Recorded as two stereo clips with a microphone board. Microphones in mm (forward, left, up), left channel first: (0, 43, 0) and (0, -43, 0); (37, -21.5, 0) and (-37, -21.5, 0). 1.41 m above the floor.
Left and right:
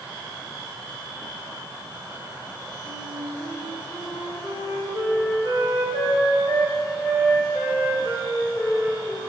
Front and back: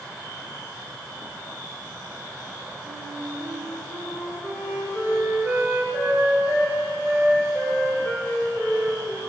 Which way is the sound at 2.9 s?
95° right.